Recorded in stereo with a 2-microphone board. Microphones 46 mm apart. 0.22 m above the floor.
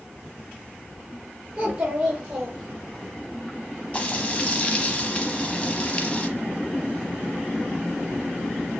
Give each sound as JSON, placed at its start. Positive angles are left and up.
{"t": 1.6, "sound": "a child speaking", "side_deg": -25, "distance_m": 3.5}
{"t": 3.9, "sound": "frying", "side_deg": 25, "distance_m": 0.9}